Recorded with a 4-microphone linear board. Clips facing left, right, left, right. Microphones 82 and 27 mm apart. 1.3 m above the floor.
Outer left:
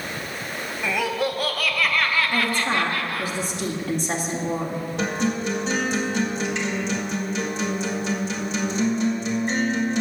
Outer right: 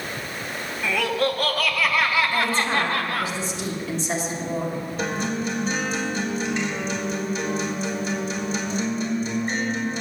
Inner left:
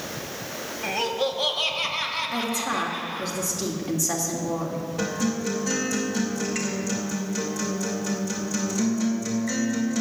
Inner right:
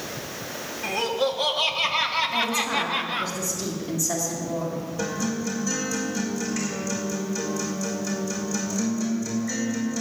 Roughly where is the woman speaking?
Left.